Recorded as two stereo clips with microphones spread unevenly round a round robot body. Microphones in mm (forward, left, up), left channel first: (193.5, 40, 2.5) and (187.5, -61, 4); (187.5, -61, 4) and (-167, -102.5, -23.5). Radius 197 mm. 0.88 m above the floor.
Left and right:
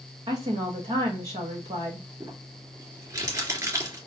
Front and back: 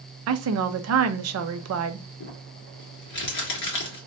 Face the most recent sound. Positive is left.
turn(degrees=-35)